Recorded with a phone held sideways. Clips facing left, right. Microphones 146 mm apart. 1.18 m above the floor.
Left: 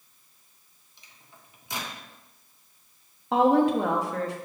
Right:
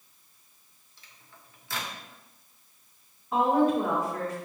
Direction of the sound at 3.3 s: 85° left.